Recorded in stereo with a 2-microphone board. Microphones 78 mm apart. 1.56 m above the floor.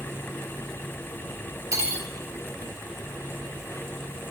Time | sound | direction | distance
1.7 | cutlery clinking | 45° right (ahead or behind) | 1.0 m